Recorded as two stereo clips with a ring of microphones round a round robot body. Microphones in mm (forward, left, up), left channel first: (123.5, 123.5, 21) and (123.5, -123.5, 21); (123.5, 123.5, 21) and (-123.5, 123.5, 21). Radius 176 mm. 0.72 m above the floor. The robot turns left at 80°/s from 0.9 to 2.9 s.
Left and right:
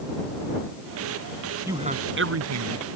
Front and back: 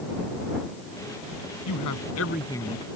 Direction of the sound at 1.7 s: 10° right.